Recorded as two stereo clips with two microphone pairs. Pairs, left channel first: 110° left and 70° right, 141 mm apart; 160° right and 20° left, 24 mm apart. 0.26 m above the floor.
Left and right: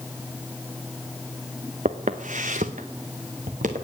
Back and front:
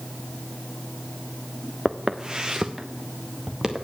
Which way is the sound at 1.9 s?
40° right.